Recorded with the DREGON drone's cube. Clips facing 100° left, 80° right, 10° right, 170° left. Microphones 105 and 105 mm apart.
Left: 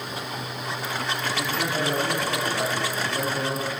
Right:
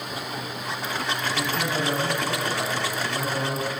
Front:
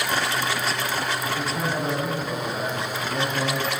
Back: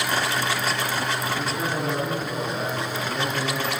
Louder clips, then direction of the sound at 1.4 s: Even, even; 35° right.